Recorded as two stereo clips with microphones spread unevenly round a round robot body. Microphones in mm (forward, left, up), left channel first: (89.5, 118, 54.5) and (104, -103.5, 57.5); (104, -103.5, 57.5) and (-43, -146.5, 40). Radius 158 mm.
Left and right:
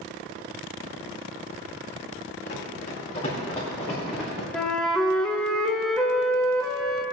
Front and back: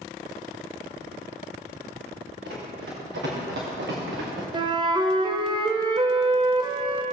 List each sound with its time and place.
2.4 s running footsteps: 160° left, 3.5 m; by 4.4 s 175° right, 2.5 m
4.5 s a flute: straight behind, 0.7 m